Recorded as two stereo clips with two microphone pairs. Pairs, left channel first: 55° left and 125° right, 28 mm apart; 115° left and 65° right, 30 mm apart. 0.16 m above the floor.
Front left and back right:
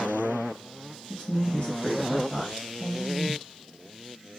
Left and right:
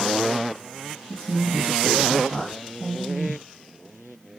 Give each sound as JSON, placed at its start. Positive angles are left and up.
{"t": 1.1, "sound": "a woman speaking", "azimuth_deg": 65, "distance_m": 1.5}